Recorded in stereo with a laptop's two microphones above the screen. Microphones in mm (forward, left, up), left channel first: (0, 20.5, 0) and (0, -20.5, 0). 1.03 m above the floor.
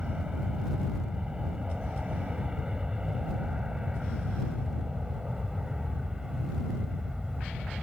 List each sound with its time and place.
0.0 s an aircraft: 20° right (ahead or behind); by 7.8 s 15° right (ahead or behind)